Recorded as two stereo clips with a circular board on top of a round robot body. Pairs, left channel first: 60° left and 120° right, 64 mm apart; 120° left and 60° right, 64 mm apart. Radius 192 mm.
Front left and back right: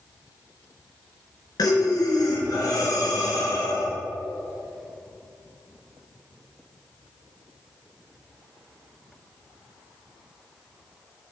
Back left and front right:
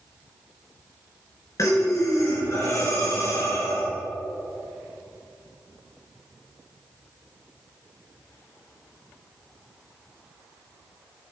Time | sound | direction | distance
1.6 | breathing | 80° left | 2.5 m